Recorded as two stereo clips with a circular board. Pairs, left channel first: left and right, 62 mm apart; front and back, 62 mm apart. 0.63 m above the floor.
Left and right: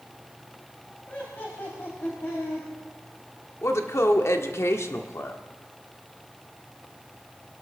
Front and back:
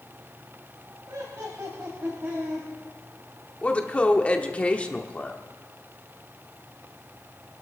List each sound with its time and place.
1.1 s laughter: 150° left, 3 m; by 2.7 s 120° left, 4 m
3.6 s a woman speaking: 65° left, 1.3 m